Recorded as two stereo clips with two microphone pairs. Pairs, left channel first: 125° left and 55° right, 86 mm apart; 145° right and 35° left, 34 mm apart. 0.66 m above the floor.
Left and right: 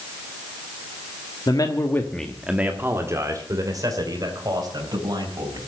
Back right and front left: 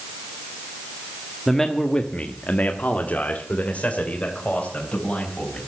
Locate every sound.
1.5 s a man speaking: 135° left, 1.3 m; by 5.6 s 90° right, 4.5 m